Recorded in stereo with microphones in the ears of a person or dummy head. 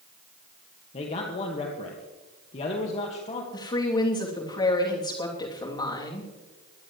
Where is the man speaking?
35° left (ahead or behind), 1.8 m.